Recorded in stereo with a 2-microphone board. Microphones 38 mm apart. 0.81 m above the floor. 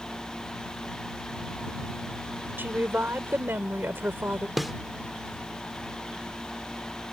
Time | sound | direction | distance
2.6 | a woman speaking | 70° right (ahead or behind) | ?
4.6 | a snare drum | centre (ahead or behind) | ?